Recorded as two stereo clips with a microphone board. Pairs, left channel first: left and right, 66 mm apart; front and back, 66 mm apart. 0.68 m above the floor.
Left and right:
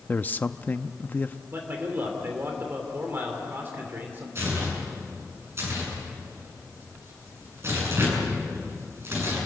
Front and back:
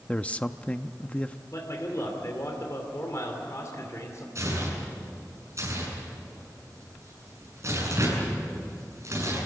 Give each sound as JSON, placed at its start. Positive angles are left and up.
{"t": 0.1, "sound": "a man speaking", "azimuth_deg": 50, "distance_m": 0.5}
{"t": 1.5, "sound": "a man speaking", "azimuth_deg": -35, "distance_m": 2.5}
{"t": 4.3, "sound": "tearing paper", "azimuth_deg": -135, "distance_m": 8.0}